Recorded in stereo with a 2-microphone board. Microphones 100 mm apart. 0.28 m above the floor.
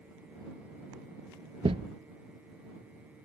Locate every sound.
1.6 s a thud: 70° right (ahead or behind)